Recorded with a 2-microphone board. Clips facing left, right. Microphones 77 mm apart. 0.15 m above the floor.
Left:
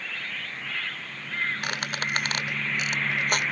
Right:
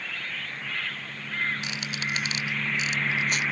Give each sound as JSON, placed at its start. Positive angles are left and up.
{"t": 1.6, "sound": "a squeak", "side_deg": 55}